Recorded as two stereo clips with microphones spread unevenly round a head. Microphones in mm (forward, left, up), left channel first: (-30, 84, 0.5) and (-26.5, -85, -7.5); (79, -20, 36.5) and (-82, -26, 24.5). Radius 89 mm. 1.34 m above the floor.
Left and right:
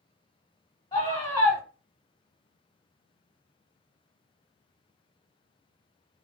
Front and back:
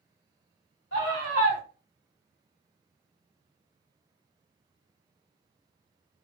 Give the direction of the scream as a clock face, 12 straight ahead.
11 o'clock.